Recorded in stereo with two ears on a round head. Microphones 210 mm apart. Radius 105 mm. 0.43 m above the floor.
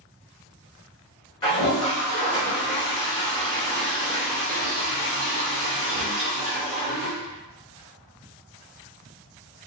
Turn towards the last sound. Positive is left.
turn(degrees=20)  # may be behind; listen again after turning